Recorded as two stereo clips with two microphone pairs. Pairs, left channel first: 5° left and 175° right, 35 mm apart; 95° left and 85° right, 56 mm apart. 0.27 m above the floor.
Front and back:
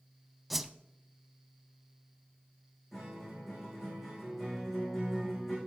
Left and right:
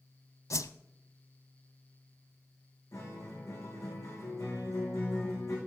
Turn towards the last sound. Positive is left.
turn(degrees=95)